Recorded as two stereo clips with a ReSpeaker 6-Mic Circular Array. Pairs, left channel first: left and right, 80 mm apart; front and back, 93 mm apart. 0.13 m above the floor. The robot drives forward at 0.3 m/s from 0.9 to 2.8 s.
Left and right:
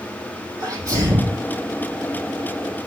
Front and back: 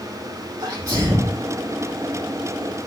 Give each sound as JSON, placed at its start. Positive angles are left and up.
{"t": 0.6, "sound": "a sneeze", "azimuth_deg": -135, "distance_m": 6.0}